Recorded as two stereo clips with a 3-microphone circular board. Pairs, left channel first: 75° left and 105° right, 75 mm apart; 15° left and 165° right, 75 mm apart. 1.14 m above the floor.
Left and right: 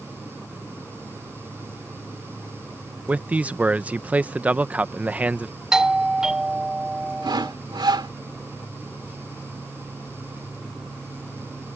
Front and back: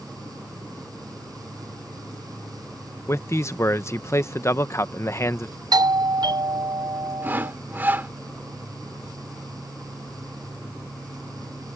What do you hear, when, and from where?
3.1 s a man speaking: 35° right
5.7 s a doorbell: 175° left
7.2 s sawing: 105° right